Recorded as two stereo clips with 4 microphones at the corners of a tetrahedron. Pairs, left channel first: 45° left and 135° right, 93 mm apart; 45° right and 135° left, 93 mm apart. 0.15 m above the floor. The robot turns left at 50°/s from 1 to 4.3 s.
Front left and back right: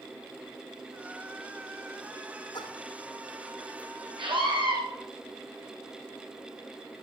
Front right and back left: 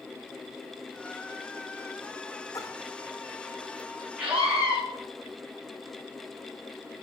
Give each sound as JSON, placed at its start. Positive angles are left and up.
{"t": 2.5, "sound": "a splash", "azimuth_deg": 10, "distance_m": 2.5}
{"t": 4.2, "sound": "a scream", "azimuth_deg": -155, "distance_m": 10.0}